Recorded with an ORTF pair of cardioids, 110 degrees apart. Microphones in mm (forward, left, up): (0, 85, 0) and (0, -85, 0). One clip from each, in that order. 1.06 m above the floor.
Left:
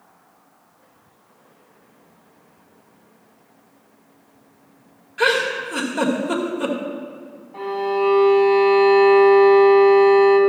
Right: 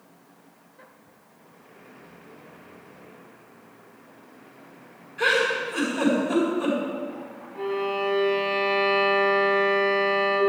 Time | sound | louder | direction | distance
5.2 | a giggle | left 3 dB | 55° left | 2 m
7.5 | a violin | left 5 dB | 50° left | 3 m